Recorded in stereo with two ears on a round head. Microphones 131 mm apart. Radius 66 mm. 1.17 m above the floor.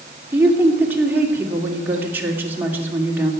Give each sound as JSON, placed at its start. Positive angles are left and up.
{"t": 0.3, "sound": "a woman speaking", "side_deg": -15, "distance_m": 2.5}